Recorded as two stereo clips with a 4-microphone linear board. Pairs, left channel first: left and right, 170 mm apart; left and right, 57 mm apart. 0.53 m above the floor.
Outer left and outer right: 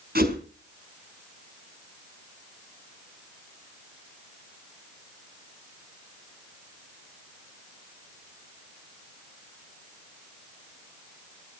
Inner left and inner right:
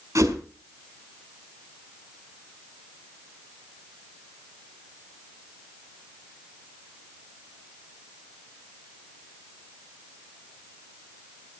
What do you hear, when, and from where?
0.1 s a whoosh: 65° right (ahead or behind), 3 m